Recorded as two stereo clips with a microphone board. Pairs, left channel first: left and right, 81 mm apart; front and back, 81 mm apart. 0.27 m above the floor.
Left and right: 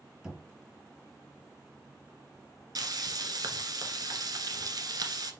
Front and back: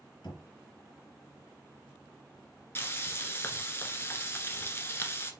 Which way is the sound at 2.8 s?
60° right.